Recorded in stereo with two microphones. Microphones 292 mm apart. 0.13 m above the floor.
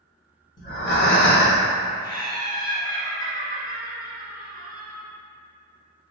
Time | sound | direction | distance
0.6 | breathing | 40° left (ahead or behind) | 1.6 m
2.0 | laughter | 15° left (ahead or behind) | 1.5 m